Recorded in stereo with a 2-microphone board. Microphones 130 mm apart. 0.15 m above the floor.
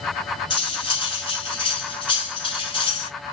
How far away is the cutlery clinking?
About 1.0 m.